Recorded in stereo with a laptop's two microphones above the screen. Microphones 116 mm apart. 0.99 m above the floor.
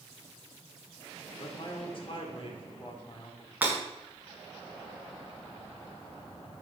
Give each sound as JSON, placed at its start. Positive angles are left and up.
{"t": 1.4, "sound": "a man speaking", "side_deg": 50, "distance_m": 2.5}
{"t": 3.6, "sound": "breaking glass", "side_deg": -15, "distance_m": 6.0}